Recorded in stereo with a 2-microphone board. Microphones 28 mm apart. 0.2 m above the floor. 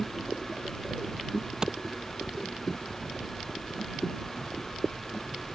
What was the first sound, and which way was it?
A clap, 30° right (ahead or behind).